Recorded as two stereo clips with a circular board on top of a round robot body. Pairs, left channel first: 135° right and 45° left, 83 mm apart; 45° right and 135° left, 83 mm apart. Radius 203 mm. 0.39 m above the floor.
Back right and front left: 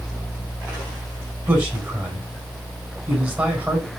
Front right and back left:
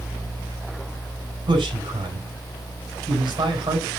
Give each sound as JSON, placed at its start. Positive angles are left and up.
{"t": 1.5, "sound": "a man speaking", "azimuth_deg": 115, "distance_m": 5.0}